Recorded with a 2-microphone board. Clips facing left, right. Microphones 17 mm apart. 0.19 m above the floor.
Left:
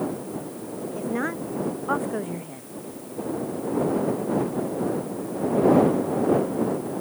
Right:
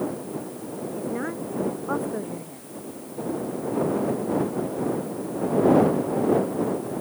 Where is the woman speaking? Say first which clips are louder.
Left 3 dB; 35° left (ahead or behind); by 2.7 s 30° left (ahead or behind).